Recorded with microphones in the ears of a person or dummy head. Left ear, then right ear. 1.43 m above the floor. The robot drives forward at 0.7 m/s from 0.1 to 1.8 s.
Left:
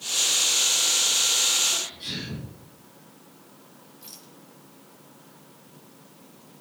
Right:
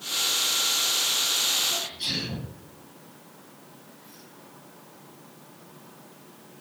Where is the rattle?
80° left, 3 m.